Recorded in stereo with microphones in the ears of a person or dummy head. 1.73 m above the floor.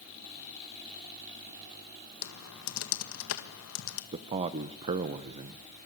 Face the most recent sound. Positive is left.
turn(degrees=-35)  # may be behind; listen again after turning